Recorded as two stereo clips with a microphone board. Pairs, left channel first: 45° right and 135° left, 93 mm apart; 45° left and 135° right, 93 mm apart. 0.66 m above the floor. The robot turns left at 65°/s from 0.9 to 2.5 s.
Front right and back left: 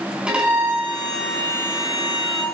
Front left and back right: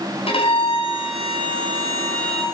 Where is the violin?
55° left, 4.5 m; by 2.4 s 45° right, 4.5 m.